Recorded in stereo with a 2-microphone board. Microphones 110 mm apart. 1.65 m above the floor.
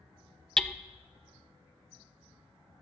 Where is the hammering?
5° left (ahead or behind), 0.5 m.